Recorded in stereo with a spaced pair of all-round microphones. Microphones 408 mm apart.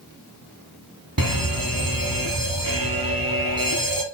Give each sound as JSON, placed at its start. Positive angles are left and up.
{"t": 1.2, "sound": "a fire alarm", "side_deg": -55, "distance_m": 2.0}